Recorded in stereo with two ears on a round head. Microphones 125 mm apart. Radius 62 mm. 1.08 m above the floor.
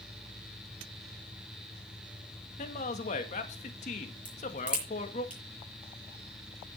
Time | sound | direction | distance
2.6 | a man speaking | 55° left (ahead or behind) | 1.9 m
4.2 | a crack | 10° right (ahead or behind) | 5.5 m